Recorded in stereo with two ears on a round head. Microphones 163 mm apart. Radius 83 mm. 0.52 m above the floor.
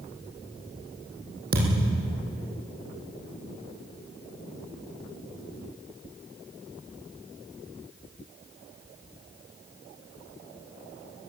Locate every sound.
1.5 s a thud: 50° right (ahead or behind), 5.5 m